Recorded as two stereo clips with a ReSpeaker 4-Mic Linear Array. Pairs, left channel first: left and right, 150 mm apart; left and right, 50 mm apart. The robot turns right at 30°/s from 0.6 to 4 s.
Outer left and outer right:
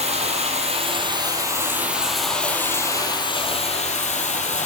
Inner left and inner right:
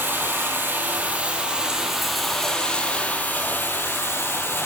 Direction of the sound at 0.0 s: 50° right.